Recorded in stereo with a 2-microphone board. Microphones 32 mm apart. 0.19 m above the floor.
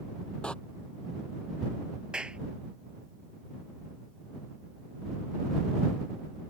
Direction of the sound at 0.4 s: 30° left (ahead or behind).